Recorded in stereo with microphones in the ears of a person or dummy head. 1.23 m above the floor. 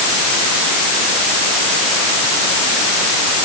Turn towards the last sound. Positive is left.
No sound to turn to.